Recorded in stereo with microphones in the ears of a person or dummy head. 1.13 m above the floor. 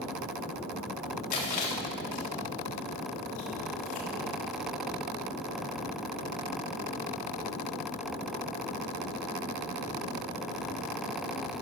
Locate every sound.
1.3 s chewing: 40° left (ahead or behind), 1.3 m